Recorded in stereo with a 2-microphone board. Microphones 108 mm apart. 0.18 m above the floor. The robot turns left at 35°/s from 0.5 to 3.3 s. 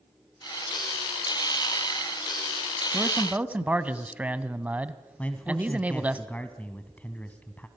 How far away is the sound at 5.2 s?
About 1.4 m.